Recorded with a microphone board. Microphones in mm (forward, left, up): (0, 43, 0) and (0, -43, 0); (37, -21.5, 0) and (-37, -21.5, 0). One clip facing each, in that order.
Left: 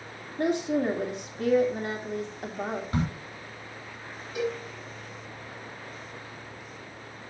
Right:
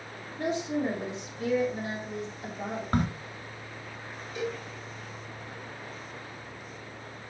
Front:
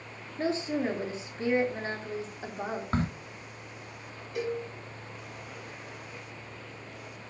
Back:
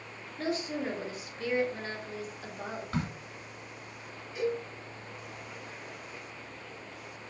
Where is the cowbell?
15° left, 4.5 m.